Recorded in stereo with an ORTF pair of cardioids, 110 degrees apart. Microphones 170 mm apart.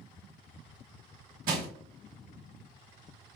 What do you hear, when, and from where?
1.5 s crushing: 60° right, 1.2 m